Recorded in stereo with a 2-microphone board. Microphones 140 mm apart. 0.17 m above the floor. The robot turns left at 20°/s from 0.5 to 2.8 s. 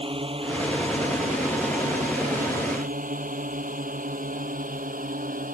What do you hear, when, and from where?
0.0 s a drone: 40° right (ahead or behind); by 5.6 s 75° right (ahead or behind)